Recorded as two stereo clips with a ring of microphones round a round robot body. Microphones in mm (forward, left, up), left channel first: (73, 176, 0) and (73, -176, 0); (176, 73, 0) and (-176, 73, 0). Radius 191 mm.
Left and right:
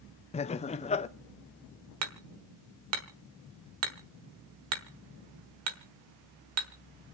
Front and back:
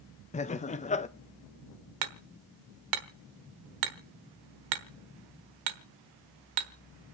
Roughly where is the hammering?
Behind right.